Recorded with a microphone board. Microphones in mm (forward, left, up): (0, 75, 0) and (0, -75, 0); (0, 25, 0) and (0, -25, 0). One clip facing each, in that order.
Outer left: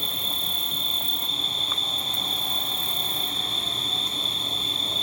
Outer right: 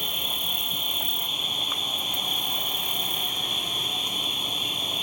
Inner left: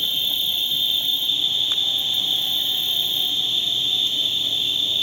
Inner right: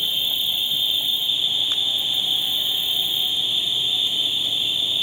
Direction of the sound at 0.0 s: 15° right (ahead or behind).